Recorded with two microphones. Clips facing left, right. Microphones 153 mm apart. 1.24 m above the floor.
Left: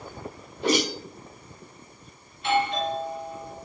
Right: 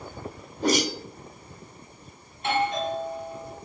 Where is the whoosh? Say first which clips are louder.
Even; 40° right (ahead or behind), 0.6 m.